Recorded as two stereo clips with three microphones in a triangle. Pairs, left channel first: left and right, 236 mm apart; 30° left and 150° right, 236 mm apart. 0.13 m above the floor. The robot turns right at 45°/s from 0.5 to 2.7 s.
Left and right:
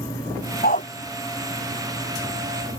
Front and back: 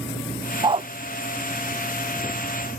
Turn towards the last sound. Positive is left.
turn(degrees=-130)